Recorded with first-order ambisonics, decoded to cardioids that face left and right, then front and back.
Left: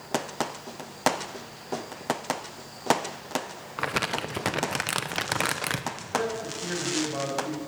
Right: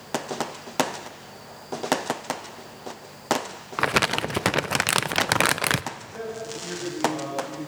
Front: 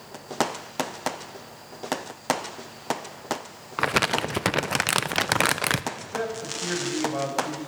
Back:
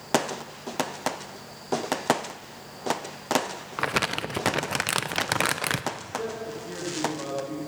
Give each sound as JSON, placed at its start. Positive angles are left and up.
{"t": 3.8, "sound": "crumpling", "azimuth_deg": -65, "distance_m": 0.5}
{"t": 5.9, "sound": "a man speaking", "azimuth_deg": 15, "distance_m": 6.0}